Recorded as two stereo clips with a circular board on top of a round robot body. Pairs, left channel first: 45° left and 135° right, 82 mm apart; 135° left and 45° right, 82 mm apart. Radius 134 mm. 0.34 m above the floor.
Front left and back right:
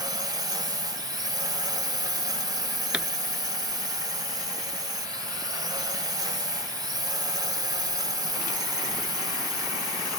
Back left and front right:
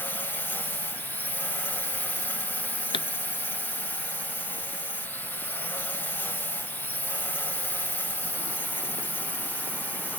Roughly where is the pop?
Behind left.